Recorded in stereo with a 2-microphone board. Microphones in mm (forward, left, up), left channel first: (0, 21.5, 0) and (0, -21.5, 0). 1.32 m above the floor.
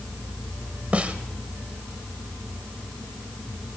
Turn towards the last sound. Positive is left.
turn(degrees=-35)  # may be behind; listen again after turning